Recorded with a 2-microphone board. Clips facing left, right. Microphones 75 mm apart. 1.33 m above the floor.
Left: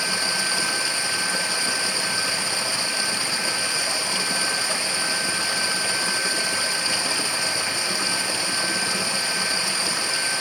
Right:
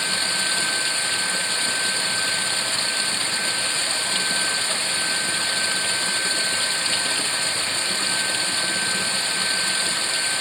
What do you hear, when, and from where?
0.0 s running water: 15° left (ahead or behind)